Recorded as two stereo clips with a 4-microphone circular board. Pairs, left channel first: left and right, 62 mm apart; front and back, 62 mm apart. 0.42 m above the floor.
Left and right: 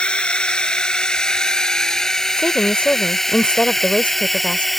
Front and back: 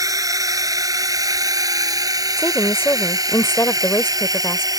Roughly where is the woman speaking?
Ahead left.